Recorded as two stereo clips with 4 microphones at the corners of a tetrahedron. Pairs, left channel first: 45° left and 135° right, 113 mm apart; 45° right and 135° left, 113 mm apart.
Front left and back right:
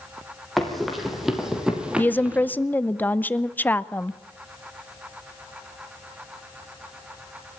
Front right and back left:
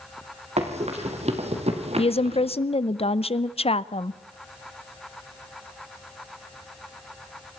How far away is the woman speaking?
About 0.8 m.